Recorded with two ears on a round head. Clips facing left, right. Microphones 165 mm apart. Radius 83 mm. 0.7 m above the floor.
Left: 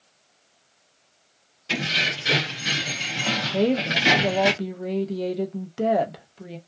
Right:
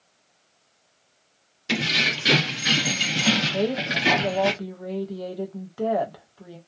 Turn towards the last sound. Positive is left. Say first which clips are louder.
# left 3 dB
turn(degrees=25)  # may be behind; listen again after turning